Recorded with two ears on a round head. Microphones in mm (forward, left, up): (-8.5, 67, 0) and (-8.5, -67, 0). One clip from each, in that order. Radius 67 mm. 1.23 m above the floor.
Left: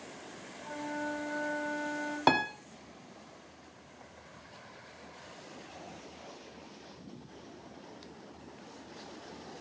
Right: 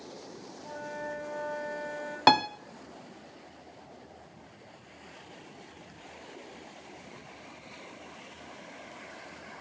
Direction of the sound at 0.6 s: 20° right (ahead or behind).